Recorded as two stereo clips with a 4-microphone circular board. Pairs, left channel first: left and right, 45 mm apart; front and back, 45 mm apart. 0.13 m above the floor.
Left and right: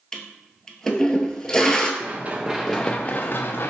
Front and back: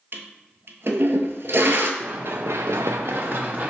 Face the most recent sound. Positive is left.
turn(degrees=125)